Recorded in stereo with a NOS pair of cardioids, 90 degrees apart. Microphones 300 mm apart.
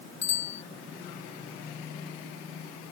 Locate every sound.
0.2 s a bicycle bell: 60° left